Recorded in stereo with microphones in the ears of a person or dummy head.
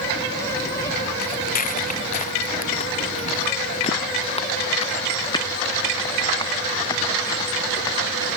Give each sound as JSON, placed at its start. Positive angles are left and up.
{"t": 1.2, "sound": "footsteps", "side_deg": 45}